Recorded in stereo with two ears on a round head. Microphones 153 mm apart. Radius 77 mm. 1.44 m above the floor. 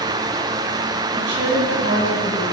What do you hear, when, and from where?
1.1 s a woman speaking: 65° right (ahead or behind), 10 m